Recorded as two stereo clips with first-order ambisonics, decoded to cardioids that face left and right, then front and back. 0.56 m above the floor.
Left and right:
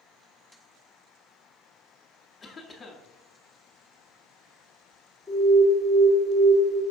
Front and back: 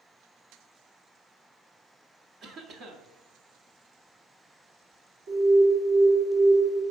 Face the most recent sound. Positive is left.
turn(degrees=-170)